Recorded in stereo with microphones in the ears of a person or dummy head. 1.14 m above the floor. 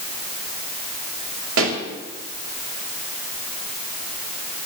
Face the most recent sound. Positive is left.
turn(degrees=-80)